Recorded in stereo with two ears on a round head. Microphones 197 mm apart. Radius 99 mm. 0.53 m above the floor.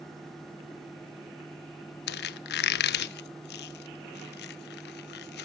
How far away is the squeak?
About 0.6 m.